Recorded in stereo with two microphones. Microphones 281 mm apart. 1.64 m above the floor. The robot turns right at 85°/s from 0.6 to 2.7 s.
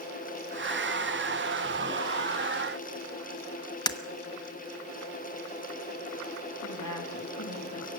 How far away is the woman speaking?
About 3 m.